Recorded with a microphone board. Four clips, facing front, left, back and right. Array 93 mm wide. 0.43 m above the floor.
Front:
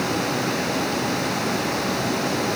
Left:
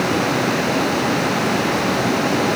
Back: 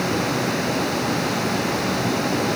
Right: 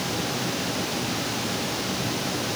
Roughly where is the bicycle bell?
No bicycle bell in this recording.